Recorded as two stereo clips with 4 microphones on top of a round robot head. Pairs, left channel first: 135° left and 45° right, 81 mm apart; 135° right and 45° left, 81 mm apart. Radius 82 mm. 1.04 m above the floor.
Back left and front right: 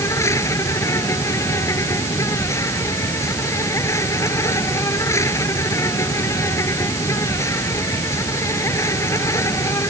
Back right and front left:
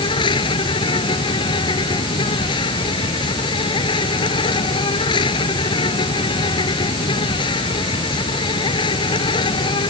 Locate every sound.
0.0 s an insect: 165° right